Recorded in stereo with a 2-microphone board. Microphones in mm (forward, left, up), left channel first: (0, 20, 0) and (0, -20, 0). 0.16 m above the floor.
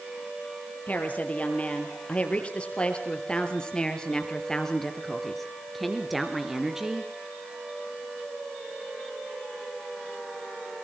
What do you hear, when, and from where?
0.9 s a woman speaking: 35° left (ahead or behind), 4.5 m; by 7.1 s 15° right (ahead or behind), 3 m